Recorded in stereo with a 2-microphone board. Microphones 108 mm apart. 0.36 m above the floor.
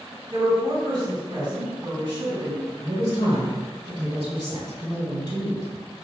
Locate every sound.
0.3 s a woman speaking: 45° right (ahead or behind), 1.9 m
2.8 s a man speaking: 55° right (ahead or behind), 1.6 m